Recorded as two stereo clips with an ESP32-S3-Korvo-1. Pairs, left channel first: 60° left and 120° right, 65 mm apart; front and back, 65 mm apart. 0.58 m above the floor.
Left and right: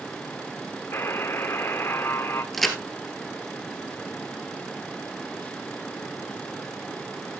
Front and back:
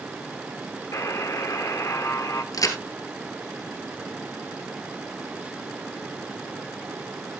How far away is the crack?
About 2 m.